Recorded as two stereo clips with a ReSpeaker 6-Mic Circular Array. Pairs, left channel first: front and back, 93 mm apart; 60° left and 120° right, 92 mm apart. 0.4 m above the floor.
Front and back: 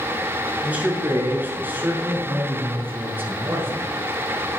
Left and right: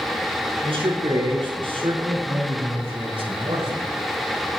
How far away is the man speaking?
About 6 m.